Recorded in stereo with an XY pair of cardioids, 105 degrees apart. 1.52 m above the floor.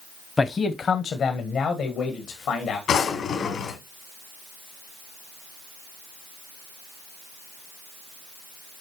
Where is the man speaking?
25° left, 0.8 m; by 2.8 s 75° left, 2.5 m.